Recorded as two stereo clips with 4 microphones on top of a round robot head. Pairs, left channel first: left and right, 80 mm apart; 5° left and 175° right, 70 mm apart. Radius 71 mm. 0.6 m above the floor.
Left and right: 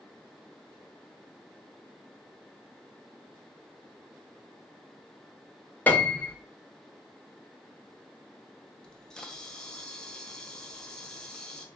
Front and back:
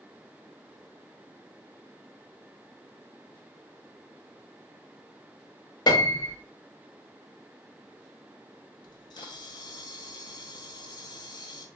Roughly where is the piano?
Ahead.